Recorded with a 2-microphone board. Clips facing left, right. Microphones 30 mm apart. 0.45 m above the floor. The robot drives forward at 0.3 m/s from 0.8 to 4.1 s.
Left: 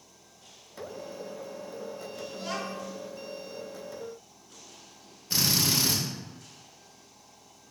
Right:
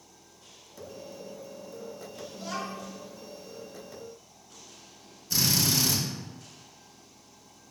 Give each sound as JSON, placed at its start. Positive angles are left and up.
{"t": 2.3, "sound": "a child speaking", "side_deg": 45, "distance_m": 0.7}
{"t": 5.3, "sound": "a drill", "side_deg": 30, "distance_m": 0.7}